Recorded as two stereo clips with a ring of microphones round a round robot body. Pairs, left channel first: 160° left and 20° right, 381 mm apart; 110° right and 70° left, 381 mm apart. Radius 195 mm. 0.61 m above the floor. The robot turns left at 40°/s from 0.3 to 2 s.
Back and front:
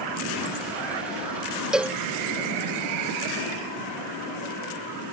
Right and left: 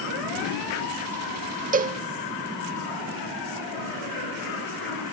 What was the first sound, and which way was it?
A cowbell, 60° left.